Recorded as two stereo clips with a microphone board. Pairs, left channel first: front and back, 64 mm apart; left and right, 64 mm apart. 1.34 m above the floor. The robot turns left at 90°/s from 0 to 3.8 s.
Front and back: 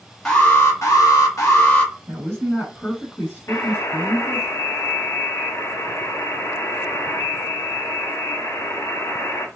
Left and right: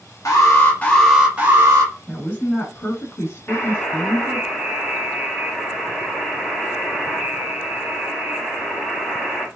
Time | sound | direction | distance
0.2 | an alarm | 80° left | 0.9 m
2.1 | a woman speaking | 170° left | 1.8 m
3.5 | a buzzer | 30° left | 1.3 m